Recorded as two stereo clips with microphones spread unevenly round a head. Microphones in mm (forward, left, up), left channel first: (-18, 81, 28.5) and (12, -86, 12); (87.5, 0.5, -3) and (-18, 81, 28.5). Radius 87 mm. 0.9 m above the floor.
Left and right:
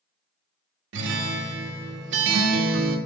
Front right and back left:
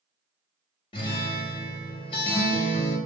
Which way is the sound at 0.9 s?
100° right.